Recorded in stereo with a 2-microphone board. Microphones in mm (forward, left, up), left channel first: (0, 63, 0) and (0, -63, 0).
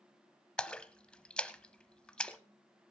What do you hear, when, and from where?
0.6 s a splash: 10° left (ahead or behind), 0.8 m